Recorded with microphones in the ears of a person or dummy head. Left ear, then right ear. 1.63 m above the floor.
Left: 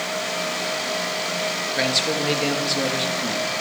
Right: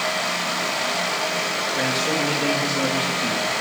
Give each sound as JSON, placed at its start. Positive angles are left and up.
{"t": 1.8, "sound": "a man speaking", "side_deg": 30, "distance_m": 3.0}